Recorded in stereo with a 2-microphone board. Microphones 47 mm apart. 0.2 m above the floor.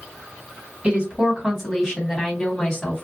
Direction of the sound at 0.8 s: 20° right (ahead or behind).